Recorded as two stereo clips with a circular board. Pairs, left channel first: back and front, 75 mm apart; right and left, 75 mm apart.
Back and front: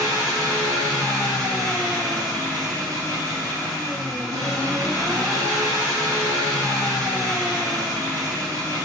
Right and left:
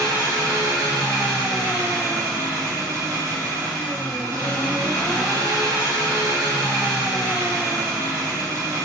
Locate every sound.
0.0 s an engine running: 45° left, 1.7 m